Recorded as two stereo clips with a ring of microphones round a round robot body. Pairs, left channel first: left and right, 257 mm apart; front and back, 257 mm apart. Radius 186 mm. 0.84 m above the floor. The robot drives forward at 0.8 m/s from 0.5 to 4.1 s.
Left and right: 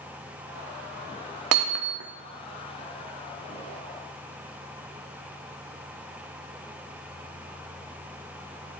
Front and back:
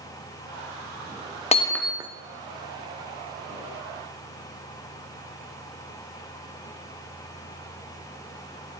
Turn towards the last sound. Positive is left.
turn(degrees=-160)